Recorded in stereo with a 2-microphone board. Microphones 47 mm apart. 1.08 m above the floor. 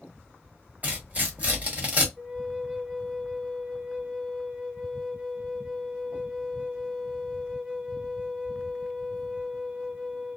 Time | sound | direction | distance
0.8 | tearing paper | 35° right (ahead or behind) | 1.2 m
2.2 | a flute | 15° right (ahead or behind) | 0.6 m